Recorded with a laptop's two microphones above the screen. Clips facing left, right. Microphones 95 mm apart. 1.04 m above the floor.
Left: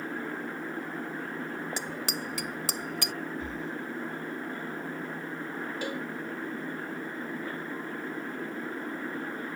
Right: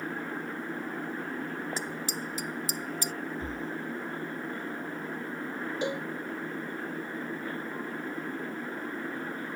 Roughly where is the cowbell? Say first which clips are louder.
Right 4 dB; right.